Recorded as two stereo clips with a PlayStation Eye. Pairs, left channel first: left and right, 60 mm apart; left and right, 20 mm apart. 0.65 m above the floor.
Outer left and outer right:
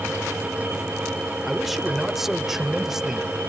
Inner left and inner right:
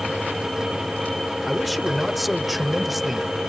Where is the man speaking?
5° right (ahead or behind); by 3.5 s 10° right (ahead or behind).